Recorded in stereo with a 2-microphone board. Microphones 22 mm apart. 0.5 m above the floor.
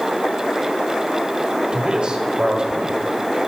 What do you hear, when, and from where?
1.7 s a man speaking: 40° right (ahead or behind), 2.5 m